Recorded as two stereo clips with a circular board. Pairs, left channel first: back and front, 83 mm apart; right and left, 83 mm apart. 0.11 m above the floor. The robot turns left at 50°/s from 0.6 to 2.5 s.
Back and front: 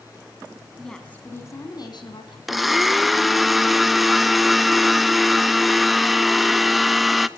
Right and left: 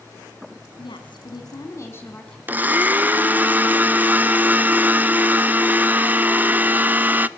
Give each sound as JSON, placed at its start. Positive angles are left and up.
{"t": 0.8, "sound": "a woman speaking", "azimuth_deg": -90, "distance_m": 4.0}
{"t": 2.5, "sound": "a blender", "azimuth_deg": 85, "distance_m": 0.6}